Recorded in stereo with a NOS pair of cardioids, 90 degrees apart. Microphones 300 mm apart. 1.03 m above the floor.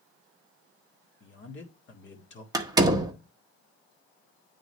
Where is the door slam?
10° right, 1.3 m.